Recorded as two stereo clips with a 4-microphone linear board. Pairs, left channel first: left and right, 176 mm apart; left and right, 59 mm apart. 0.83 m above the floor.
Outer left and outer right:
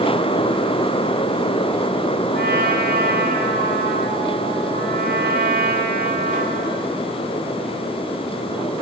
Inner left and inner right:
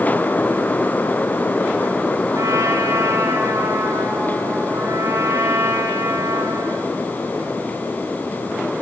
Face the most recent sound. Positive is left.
turn(degrees=-65)  # may be behind; listen again after turning